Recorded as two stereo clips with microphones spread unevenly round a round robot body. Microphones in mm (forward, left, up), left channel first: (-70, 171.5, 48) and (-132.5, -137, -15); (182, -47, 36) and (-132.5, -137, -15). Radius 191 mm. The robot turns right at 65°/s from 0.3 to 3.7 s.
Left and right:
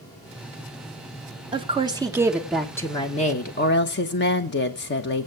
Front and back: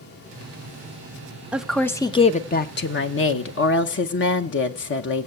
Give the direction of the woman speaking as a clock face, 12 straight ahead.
3 o'clock.